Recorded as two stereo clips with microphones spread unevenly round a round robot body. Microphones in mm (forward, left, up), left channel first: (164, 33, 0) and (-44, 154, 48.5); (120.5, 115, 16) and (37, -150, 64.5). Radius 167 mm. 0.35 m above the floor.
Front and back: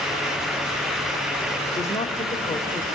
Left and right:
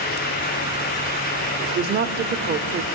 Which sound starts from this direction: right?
A woman speaking, at 1.6 s.